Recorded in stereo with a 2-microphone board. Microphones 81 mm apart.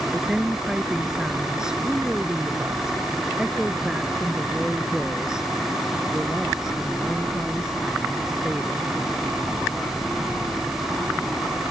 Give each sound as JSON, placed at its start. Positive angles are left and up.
{"t": 0.1, "sound": "a woman speaking", "side_deg": -10}